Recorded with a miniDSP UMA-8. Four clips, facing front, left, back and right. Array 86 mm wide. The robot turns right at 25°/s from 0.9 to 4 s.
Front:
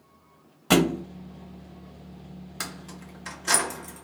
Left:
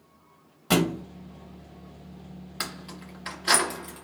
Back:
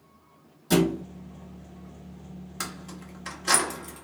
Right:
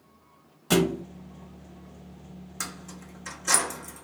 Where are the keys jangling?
80° left, 0.6 m; by 4.0 s 115° left, 0.6 m.